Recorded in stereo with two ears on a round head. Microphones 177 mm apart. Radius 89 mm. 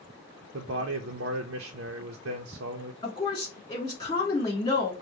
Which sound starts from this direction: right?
A man speaking, at 0.5 s.